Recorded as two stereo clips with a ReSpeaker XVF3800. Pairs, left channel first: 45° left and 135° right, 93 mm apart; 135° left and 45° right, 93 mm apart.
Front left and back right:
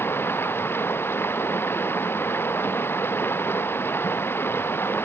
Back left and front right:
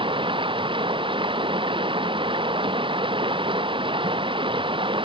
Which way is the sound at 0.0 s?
20° right.